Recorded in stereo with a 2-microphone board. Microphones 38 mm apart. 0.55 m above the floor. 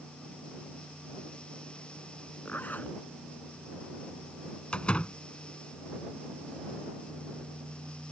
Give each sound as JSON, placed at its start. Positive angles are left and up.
{"t": 2.5, "sound": "a zipper", "side_deg": 50}
{"t": 4.7, "sound": "a door slam", "side_deg": 30}